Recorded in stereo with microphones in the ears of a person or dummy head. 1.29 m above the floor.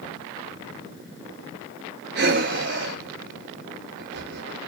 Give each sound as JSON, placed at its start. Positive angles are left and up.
{"t": 2.1, "sound": "breathing", "side_deg": -55, "distance_m": 1.3}